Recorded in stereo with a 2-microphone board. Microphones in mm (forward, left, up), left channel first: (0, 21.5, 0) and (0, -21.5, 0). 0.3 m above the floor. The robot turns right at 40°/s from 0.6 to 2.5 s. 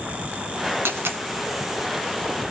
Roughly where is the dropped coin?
Right.